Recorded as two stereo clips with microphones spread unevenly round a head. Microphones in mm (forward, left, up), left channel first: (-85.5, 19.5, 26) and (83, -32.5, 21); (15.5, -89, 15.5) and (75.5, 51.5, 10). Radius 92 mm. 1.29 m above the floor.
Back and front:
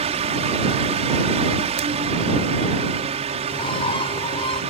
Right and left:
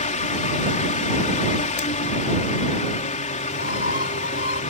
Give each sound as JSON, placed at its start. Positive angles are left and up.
{"t": 0.0, "sound": "a fan", "azimuth_deg": -70}
{"t": 3.5, "sound": "a bird", "azimuth_deg": -135}